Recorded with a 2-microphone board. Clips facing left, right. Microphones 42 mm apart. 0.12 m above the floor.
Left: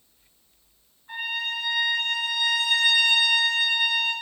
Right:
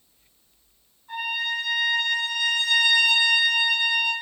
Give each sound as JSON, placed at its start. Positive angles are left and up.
{"t": 1.1, "sound": "a trumpet", "side_deg": 30, "distance_m": 1.1}